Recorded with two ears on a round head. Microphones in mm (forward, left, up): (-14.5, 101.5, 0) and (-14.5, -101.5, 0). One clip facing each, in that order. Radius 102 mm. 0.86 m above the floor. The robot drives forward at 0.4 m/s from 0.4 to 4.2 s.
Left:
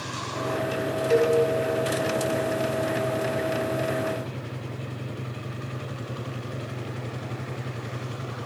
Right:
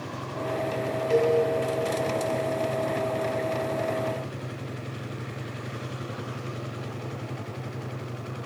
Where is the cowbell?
25° left (ahead or behind), 7.5 m.